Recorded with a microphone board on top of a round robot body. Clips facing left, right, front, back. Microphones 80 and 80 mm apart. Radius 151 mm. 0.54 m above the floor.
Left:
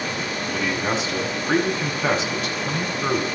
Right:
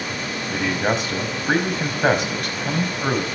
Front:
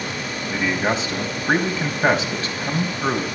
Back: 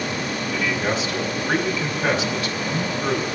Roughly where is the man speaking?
Ahead right.